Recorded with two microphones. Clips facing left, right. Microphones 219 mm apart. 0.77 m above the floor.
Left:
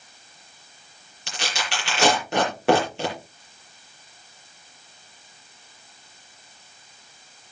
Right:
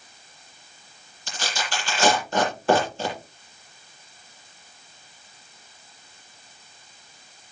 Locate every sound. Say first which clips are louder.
1.3 s tearing paper: even; 75° left (ahead or behind), 7 m